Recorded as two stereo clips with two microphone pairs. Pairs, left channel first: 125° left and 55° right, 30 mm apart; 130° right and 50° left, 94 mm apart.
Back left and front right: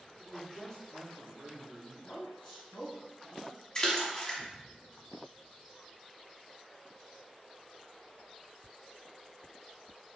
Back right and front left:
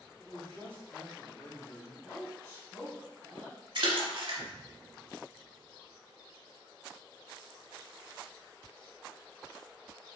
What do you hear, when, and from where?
0.2 s a man speaking: 130° left, 1.1 m; by 1.9 s 175° left, 2 m
2.0 s a woman speaking: 155° left, 1.3 m
3.8 s a splash: 65° left, 0.8 m